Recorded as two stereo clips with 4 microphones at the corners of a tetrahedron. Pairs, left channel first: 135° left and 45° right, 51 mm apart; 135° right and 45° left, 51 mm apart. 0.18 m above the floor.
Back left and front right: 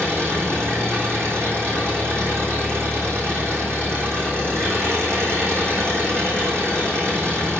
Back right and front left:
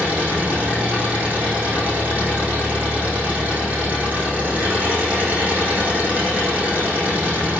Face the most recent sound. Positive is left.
turn(degrees=-15)